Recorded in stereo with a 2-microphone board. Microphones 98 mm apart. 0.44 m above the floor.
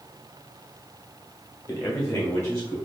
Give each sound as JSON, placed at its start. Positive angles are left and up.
{"t": 1.7, "sound": "a man speaking", "side_deg": 40, "distance_m": 1.6}